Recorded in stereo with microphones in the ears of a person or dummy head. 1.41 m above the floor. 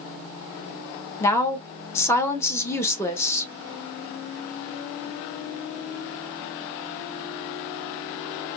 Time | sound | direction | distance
1.2 | a woman speaking | 20° left (ahead or behind) | 0.7 m